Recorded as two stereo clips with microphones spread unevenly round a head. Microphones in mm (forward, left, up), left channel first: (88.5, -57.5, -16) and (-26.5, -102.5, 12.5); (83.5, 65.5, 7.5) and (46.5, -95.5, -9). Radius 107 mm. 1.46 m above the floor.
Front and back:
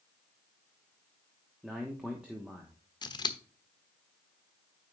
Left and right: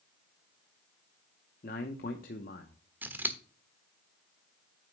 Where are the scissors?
25° right, 1.2 m.